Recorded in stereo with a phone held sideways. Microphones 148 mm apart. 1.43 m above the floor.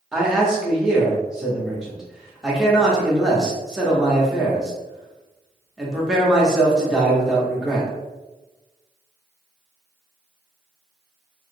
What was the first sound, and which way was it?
A man speaking, 5° right (ahead or behind).